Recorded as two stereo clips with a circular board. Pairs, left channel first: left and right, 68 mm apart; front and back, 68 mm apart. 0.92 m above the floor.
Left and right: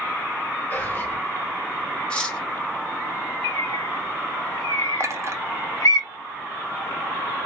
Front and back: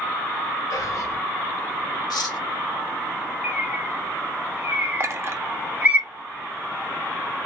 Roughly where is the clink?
Behind right.